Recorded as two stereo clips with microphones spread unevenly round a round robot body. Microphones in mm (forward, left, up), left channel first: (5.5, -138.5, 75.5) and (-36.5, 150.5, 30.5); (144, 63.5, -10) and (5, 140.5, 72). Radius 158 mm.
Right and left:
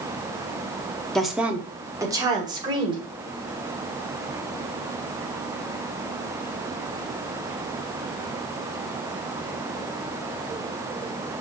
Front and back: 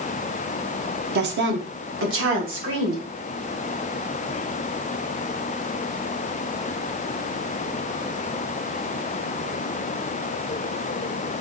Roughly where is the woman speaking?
Behind.